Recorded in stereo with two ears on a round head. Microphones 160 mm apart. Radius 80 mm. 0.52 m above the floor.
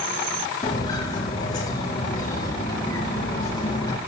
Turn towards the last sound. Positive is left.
turn(degrees=20)  # may be behind; listen again after turning